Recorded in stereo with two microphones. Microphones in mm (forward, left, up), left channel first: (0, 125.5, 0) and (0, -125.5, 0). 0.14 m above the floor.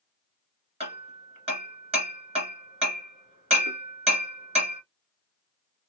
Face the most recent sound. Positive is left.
turn(degrees=-25)  # may be behind; listen again after turning